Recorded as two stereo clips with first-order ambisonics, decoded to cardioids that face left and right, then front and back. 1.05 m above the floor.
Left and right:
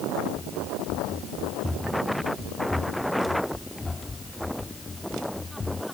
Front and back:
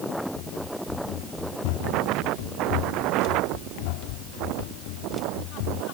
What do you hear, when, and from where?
0.3 s running footsteps: 5° left; by 5.8 s 15° left